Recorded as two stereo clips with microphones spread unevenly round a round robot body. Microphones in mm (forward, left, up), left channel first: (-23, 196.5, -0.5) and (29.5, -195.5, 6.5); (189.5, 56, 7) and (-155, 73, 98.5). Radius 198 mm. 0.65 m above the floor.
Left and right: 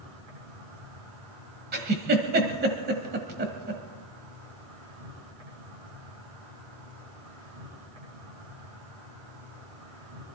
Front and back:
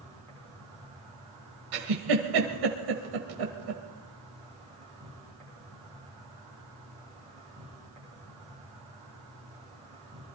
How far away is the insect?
About 10 m.